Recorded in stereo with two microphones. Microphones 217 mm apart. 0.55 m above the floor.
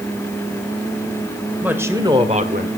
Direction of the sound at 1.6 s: 5° right (ahead or behind).